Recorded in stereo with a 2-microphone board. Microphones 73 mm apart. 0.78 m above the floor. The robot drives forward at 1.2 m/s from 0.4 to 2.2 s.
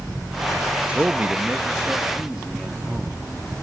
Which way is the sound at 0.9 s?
20° right (ahead or behind).